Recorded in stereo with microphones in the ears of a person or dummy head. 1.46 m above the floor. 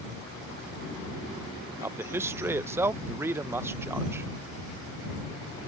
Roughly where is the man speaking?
Centre.